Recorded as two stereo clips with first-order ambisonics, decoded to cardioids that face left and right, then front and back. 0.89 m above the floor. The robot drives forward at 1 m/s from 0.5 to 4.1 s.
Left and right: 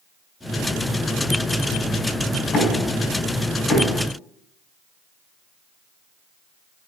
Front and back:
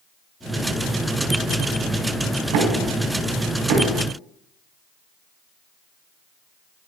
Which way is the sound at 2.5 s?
155° left.